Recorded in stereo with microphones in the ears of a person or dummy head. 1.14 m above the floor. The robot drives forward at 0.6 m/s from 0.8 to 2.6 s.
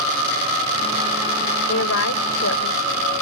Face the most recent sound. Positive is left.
turn(degrees=75)  # may be behind; listen again after turning